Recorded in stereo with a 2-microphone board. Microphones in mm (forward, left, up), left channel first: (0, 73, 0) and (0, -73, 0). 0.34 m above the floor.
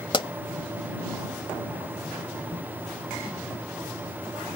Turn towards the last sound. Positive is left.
turn(degrees=35)  # may be behind; listen again after turning